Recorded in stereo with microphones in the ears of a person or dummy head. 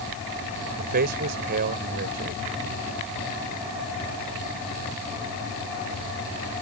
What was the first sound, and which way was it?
A man speaking, 50° right (ahead or behind).